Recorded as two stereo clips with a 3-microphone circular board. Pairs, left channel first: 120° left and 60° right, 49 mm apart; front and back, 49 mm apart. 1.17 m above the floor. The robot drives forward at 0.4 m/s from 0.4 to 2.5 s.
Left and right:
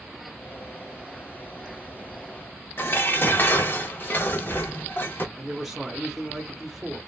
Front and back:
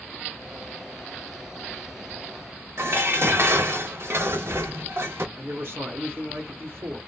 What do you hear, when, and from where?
2.8 s dishes clattering: 160° left, 0.7 m
5.4 s a man speaking: 145° right, 1.0 m